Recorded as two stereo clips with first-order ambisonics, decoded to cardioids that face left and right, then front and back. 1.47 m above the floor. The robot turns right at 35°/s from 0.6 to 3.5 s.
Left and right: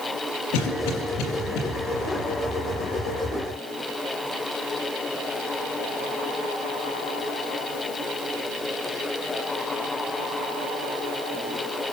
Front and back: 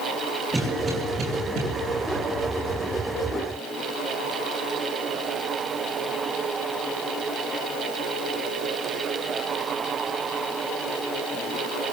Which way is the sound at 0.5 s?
95° left.